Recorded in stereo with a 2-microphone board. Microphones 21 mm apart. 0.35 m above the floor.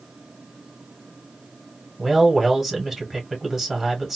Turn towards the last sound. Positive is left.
turn(degrees=-5)  # may be behind; listen again after turning